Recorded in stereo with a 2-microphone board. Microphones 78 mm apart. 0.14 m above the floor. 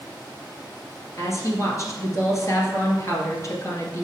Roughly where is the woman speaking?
Left.